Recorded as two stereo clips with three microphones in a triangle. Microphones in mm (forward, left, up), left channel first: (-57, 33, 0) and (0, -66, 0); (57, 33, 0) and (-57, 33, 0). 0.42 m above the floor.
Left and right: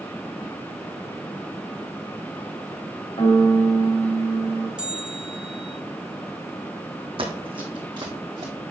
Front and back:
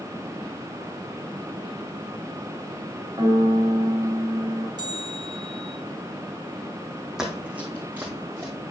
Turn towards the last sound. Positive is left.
turn(degrees=-110)